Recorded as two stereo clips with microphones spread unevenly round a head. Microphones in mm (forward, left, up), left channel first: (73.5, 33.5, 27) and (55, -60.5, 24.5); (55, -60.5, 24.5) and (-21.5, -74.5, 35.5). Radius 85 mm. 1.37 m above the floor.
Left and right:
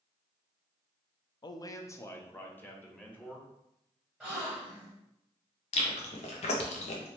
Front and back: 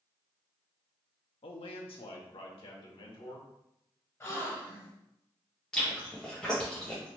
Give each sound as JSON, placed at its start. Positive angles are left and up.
{"t": 1.4, "sound": "a man speaking", "azimuth_deg": 35, "distance_m": 0.5}
{"t": 4.2, "sound": "a gasp", "azimuth_deg": -25, "distance_m": 1.3}
{"t": 5.7, "sound": "chewing", "azimuth_deg": 95, "distance_m": 0.6}